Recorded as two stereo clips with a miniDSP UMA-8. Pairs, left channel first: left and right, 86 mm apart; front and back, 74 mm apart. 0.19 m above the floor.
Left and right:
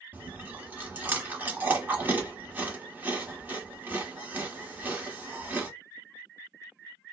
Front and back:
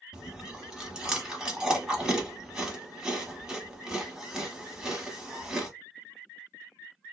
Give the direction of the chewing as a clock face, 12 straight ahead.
4 o'clock.